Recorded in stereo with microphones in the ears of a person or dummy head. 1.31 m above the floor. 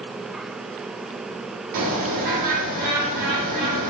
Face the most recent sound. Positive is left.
turn(degrees=-50)  # may be behind; listen again after turning